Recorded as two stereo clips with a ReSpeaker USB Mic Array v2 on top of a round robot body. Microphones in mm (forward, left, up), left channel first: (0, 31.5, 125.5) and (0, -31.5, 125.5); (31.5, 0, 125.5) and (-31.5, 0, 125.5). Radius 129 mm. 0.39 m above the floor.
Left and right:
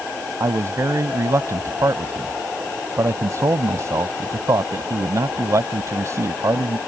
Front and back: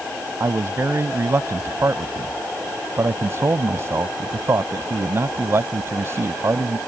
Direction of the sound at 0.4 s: 130° right.